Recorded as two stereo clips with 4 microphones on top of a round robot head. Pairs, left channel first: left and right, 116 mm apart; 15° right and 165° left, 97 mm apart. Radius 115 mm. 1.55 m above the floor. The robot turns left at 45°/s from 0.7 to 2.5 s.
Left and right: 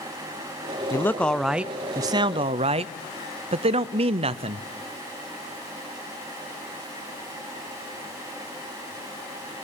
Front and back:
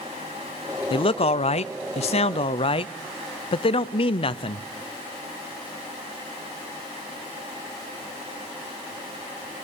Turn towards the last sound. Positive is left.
turn(degrees=-50)